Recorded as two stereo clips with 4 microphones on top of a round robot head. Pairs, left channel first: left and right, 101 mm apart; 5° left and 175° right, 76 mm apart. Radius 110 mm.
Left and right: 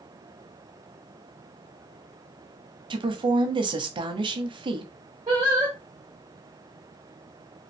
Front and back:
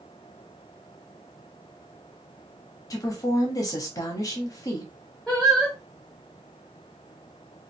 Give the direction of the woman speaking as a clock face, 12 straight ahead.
2 o'clock.